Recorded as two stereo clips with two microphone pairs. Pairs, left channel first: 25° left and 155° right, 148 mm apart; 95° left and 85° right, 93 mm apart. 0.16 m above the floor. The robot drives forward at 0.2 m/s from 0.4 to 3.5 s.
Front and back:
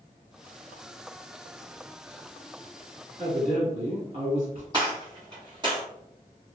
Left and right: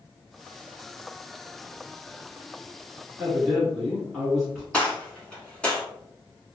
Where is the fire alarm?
I don't hear a fire alarm.